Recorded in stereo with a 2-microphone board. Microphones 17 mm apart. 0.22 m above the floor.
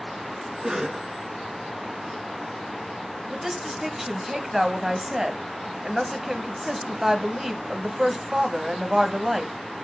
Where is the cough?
35° right (ahead or behind), 2 m.